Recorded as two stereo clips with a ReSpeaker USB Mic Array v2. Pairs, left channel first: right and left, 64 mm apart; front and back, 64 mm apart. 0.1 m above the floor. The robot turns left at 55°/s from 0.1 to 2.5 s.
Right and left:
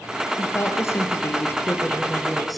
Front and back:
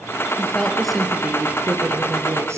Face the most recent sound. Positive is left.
turn(degrees=180)